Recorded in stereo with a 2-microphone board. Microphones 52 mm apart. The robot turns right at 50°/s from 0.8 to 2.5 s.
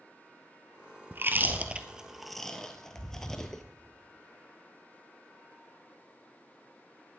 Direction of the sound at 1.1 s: 45° right (ahead or behind).